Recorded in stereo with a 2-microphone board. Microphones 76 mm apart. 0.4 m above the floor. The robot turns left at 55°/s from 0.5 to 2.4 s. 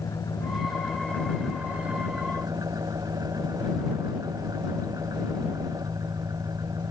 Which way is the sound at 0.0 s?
50° left.